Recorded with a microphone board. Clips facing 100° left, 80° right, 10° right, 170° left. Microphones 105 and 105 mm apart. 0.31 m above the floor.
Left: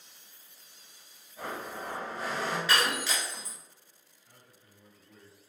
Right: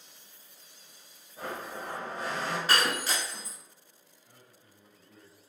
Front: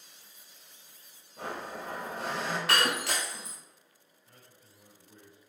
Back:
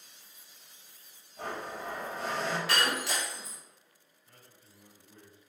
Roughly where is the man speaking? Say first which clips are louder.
Even, even; ahead.